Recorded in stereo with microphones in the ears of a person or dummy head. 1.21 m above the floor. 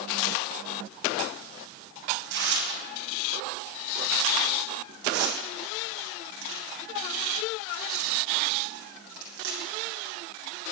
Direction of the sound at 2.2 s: 75° right (ahead or behind).